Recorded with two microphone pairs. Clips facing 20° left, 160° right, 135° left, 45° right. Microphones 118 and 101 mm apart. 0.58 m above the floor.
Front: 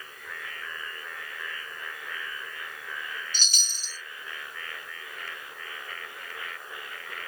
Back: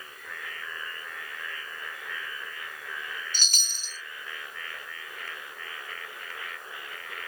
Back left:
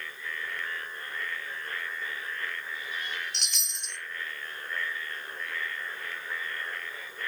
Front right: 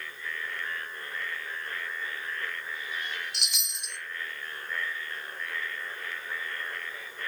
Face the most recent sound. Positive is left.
turn(degrees=-125)